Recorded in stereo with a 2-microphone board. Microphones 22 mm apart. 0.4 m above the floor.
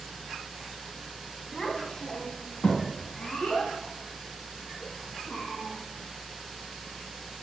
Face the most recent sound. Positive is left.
turn(degrees=65)  # may be behind; listen again after turning